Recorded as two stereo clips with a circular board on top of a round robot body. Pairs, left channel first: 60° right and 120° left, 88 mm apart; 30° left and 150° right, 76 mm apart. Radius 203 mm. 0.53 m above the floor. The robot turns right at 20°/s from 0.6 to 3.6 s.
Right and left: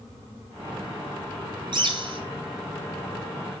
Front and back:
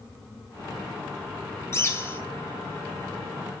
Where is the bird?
85° left, 2.5 m; by 2.2 s 95° left, 2.5 m.